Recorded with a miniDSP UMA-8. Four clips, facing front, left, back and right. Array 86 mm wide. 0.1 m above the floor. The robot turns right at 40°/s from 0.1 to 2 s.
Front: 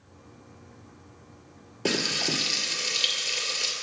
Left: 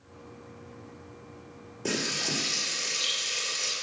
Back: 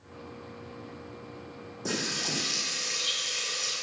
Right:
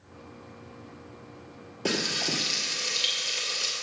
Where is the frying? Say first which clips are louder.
Right 2 dB, front 5 dB; 20° right, 2 m; by 3.7 s 15° right, 2 m.